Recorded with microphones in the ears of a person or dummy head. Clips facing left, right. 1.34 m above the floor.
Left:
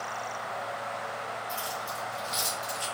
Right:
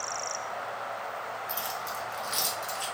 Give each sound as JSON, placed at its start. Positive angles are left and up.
{"t": 1.5, "sound": "keys jangling", "side_deg": -65, "distance_m": 1.2}